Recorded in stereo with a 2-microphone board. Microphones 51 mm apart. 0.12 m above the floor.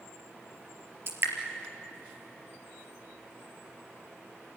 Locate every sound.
1.1 s dripping: 55° right (ahead or behind), 3 m